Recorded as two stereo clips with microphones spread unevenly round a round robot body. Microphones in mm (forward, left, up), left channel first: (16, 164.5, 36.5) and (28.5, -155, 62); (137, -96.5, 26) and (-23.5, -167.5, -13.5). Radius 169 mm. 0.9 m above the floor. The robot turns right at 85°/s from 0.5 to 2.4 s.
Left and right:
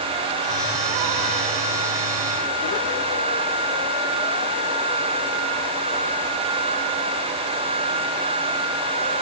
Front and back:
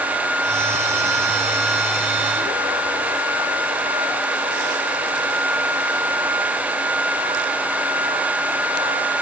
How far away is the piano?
No piano in this recording.